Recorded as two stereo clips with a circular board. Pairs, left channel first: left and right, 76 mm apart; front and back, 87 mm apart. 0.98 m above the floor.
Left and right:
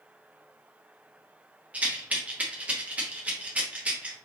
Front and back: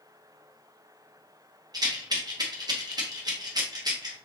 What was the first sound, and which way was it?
A rattle, 155° right.